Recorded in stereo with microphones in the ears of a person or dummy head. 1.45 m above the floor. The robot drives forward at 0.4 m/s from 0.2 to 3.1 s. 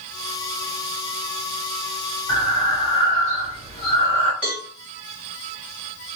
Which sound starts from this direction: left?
Breathing, at 2.3 s.